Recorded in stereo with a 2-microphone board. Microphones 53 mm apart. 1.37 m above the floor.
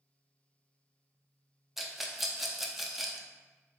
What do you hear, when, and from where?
1.8 s a rattle: 5° right (ahead or behind), 0.5 m